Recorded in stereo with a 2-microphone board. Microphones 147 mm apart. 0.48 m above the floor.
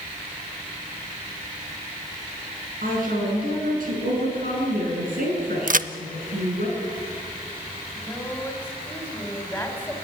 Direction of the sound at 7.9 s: 15° left (ahead or behind).